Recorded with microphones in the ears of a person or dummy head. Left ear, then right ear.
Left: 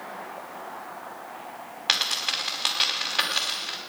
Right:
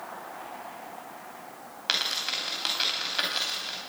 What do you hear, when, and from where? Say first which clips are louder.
1.9 s a dropped coin: left 3 dB; 10° left (ahead or behind), 3.5 m